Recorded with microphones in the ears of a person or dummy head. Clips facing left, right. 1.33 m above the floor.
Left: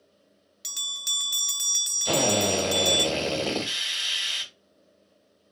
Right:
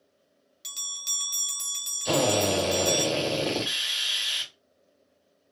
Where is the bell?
15° left (ahead or behind), 0.7 m.